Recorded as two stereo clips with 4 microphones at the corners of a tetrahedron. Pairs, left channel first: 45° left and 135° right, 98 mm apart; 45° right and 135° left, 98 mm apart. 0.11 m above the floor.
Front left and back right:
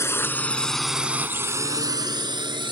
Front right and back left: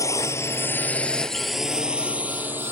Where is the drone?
5° right; by 2.7 s 160° right.